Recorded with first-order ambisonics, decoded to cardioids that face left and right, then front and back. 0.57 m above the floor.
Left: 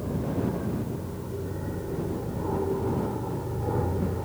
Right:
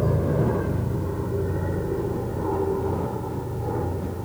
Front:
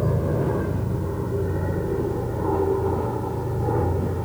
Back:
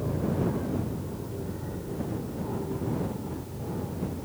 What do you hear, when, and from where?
0.0 s an aircraft: 45° right; by 4.2 s 5° left